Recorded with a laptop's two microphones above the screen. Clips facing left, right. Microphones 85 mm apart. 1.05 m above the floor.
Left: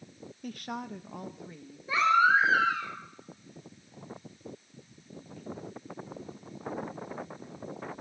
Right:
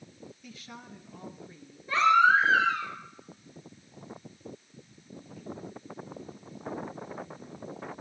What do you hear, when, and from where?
0.4 s a woman speaking: 50° left (ahead or behind), 0.6 m; by 1.8 s 75° left (ahead or behind), 1.1 m
1.9 s a baby crying: 10° left (ahead or behind), 6.5 m